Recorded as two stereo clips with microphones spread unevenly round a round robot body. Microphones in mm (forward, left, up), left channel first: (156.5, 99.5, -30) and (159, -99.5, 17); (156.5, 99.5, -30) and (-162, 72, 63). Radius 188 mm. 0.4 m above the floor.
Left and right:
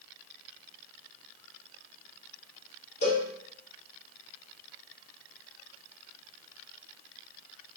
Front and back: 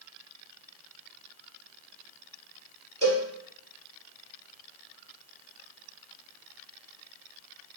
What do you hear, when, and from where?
3.0 s a cowbell: 115° left, 2.5 m